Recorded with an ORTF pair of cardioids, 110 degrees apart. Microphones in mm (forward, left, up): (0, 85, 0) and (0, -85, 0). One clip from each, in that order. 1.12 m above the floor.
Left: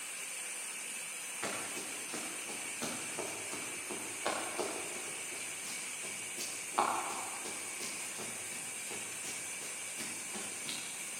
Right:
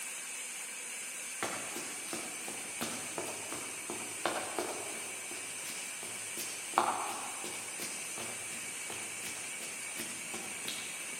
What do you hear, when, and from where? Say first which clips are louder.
1.4 s running footsteps: right 1 dB; 65° right, 5.5 m